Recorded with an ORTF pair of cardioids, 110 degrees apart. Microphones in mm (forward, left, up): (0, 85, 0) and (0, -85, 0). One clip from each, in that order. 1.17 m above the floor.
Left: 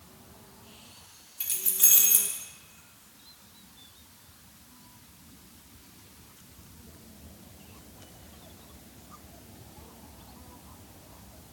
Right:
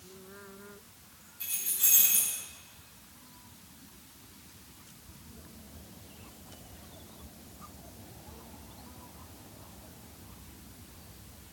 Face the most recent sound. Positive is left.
turn(degrees=55)